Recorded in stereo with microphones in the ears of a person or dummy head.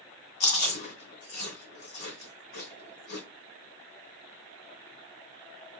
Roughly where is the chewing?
Left.